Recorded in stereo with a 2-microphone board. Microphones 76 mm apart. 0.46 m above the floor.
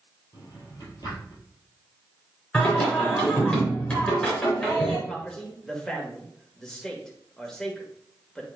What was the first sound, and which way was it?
A drawer, 55° left (ahead or behind).